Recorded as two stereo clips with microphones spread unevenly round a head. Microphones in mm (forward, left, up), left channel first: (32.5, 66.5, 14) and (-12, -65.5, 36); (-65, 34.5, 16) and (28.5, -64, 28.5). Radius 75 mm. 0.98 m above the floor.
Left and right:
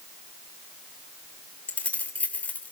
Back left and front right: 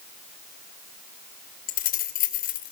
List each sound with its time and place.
1.7 s keys jangling: 155° left, 2.5 m